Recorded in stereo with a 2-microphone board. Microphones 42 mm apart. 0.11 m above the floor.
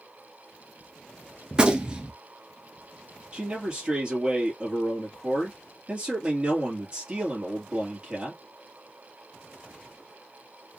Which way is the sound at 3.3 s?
25° right (ahead or behind).